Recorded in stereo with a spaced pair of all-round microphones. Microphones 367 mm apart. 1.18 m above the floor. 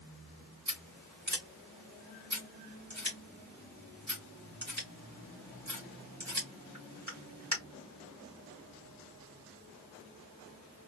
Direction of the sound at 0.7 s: 50° right (ahead or behind).